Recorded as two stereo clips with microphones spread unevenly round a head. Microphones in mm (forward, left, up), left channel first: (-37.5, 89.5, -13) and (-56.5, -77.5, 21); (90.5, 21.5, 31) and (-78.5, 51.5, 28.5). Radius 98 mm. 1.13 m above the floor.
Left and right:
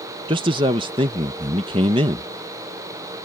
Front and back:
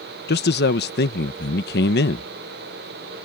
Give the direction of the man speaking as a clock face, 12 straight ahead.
1 o'clock.